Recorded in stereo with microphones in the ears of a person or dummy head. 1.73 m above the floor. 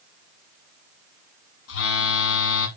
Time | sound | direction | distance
1.7 | a phone buzzing | 75° left (ahead or behind) | 2 m